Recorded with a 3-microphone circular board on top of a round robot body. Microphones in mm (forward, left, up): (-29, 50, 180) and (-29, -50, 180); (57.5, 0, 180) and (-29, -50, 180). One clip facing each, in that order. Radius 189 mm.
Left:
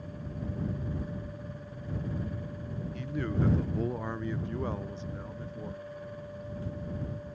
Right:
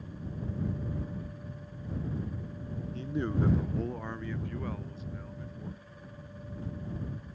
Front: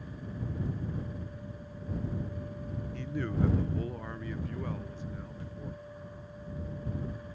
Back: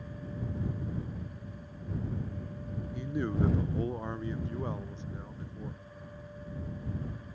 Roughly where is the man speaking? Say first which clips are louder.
Right 1 dB, back 2 dB; right.